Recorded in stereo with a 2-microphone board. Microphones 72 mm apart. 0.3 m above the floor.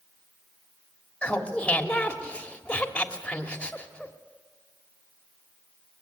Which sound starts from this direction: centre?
Laughter, at 1.2 s.